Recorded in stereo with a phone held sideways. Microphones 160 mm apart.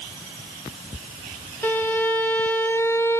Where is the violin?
15° left (ahead or behind), 0.8 m.